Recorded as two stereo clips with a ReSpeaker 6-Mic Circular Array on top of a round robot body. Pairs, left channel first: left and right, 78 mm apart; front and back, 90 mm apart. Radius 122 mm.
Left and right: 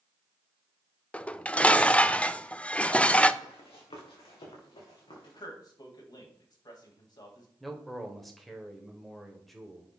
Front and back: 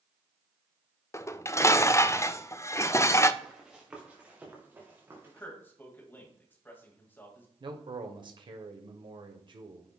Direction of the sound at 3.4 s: 95° left.